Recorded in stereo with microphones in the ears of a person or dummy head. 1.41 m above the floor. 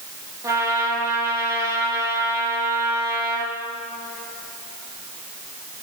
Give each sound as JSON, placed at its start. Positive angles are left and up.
{"t": 0.4, "sound": "a trumpet", "side_deg": -15, "distance_m": 1.8}